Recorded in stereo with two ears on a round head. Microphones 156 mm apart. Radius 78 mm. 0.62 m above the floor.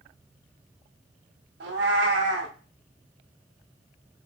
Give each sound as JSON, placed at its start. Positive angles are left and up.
{"t": 1.6, "sound": "a cat meowing", "side_deg": -70, "distance_m": 0.7}